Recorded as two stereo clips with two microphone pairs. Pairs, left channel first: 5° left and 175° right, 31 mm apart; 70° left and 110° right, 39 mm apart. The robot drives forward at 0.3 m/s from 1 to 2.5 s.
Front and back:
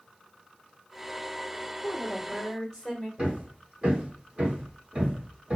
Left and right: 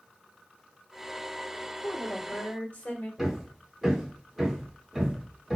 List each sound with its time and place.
1.8 s a woman speaking: 80° left, 1.5 m; by 3.1 s 85° left, 1.5 m
3.2 s hammering: 175° left, 1.1 m